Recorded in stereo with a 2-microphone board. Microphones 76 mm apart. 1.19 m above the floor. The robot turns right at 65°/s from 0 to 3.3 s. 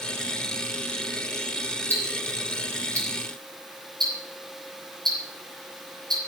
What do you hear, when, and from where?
1.9 s ticking: 25° left (ahead or behind), 6.5 m; by 6.2 s 65° right (ahead or behind), 6.5 m